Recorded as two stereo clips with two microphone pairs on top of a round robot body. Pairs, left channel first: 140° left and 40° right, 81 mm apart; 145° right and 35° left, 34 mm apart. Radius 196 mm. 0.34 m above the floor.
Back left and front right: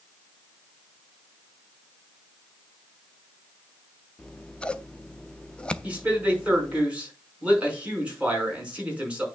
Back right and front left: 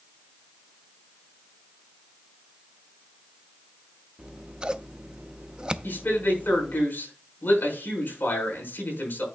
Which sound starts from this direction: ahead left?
Scissors, at 4.2 s.